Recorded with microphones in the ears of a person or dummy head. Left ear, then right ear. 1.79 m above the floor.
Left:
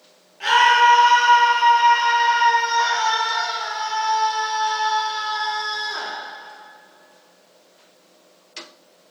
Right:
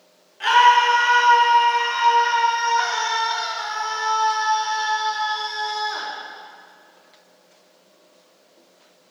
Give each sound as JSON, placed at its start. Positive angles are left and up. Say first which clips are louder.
{"t": 0.4, "sound": "a scream", "louder": "even", "side_deg": -25, "distance_m": 3.0}